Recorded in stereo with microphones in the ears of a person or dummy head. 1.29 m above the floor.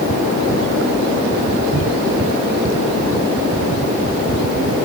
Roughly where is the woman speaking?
No woman speaking in this recording.